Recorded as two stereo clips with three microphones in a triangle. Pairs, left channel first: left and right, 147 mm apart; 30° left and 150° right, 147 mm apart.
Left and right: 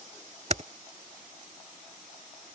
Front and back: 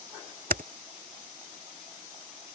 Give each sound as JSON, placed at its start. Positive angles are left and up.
{"t": 0.5, "sound": "typing on a keyboard", "azimuth_deg": -130}